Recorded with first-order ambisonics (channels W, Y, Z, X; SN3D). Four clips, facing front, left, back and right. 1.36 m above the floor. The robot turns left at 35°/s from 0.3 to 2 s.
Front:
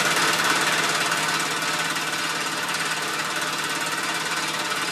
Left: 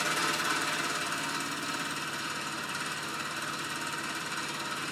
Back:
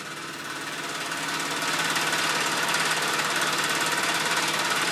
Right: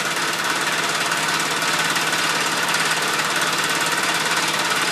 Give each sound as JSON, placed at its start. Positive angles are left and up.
{"t": 0.0, "sound": "an engine running", "azimuth_deg": -40, "distance_m": 0.8}